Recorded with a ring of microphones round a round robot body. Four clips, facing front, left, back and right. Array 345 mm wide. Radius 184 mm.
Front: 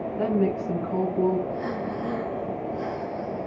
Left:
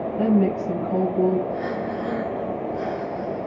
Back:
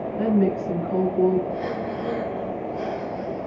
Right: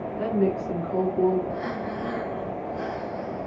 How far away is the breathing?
About 2.5 m.